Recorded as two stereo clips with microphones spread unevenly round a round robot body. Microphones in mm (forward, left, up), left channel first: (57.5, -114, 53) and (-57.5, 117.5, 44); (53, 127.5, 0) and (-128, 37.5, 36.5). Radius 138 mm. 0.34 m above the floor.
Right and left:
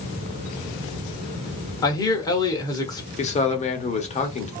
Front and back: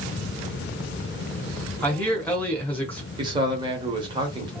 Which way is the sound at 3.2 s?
90° right.